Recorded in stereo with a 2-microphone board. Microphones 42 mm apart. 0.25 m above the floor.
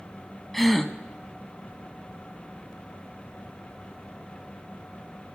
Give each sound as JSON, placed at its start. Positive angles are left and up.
{"t": 0.5, "sound": "a gasp", "side_deg": 5, "distance_m": 0.8}